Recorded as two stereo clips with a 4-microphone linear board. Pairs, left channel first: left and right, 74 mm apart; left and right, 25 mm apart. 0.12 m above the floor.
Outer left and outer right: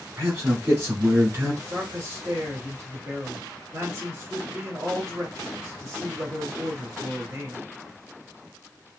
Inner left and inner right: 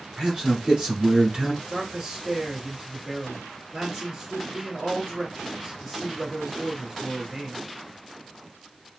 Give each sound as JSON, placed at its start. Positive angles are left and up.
{"t": 0.2, "sound": "a man speaking", "side_deg": -35, "distance_m": 1.8}
{"t": 1.7, "sound": "a man speaking", "side_deg": -40, "distance_m": 1.6}